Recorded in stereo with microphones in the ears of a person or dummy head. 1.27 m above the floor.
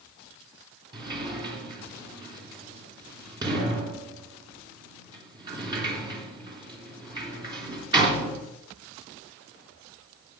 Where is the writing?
I don't hear writing.